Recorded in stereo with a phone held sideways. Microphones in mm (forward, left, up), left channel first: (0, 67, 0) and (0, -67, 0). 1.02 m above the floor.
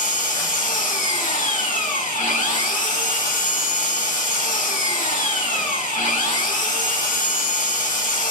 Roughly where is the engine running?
Left.